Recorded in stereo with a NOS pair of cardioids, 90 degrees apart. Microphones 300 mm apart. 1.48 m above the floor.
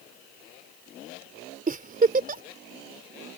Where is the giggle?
30° right.